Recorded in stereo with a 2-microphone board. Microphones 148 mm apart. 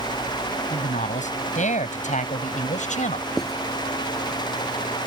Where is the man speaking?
55° left (ahead or behind).